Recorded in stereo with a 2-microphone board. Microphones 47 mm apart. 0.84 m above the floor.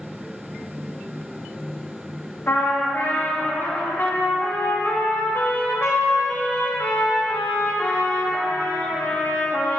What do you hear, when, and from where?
2.5 s a trumpet: 50° left (ahead or behind), 1.4 m